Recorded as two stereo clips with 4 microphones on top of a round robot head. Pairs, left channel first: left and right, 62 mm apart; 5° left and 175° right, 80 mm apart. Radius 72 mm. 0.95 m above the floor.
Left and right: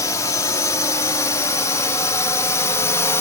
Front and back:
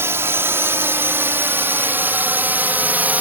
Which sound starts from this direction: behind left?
A drone, at 0.0 s.